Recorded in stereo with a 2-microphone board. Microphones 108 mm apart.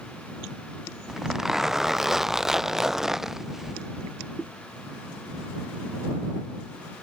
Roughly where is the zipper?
Centre.